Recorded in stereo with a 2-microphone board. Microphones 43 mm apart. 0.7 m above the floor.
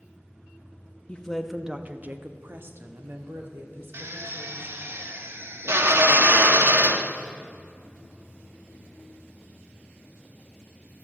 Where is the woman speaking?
20° left (ahead or behind), 0.6 m; by 4.8 s 60° right (ahead or behind), 2.5 m.